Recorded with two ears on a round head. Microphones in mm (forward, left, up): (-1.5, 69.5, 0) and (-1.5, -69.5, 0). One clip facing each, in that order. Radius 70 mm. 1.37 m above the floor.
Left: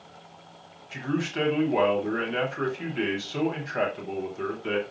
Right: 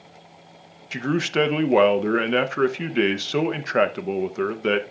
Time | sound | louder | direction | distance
0.9 | a man speaking | right 6 dB | 70° right (ahead or behind) | 0.8 m